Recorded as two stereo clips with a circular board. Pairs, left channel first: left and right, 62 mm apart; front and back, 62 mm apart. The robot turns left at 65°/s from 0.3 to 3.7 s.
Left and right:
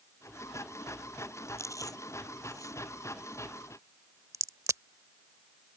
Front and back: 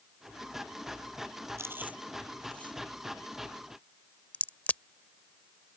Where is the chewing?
135° left; by 2.8 s 55° left.